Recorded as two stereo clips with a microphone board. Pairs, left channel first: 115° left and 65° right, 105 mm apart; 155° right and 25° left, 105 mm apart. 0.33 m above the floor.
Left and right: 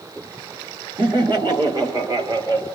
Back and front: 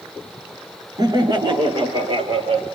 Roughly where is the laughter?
Ahead right.